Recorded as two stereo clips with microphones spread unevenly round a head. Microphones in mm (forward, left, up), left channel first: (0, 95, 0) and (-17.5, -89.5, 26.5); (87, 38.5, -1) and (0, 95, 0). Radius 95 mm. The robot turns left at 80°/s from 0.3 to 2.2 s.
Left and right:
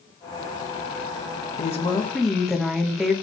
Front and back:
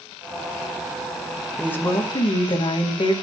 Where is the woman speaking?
50° left, 1.3 m; by 3.1 s straight ahead, 1.3 m.